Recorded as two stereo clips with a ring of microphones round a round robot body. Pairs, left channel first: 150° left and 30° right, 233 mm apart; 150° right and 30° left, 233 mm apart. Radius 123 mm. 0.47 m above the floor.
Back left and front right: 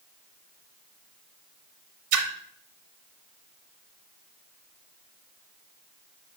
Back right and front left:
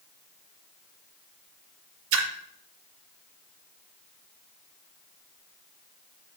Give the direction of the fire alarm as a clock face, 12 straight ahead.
I don't hear a fire alarm.